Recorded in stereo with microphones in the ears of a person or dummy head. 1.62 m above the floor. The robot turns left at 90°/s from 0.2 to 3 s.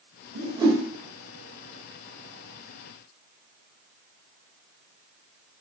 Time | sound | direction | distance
0.3 | a whoosh | 45° right (ahead or behind) | 0.7 m